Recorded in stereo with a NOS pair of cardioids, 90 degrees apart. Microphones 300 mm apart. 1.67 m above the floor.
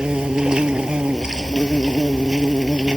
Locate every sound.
0.0 s an insect: 5° right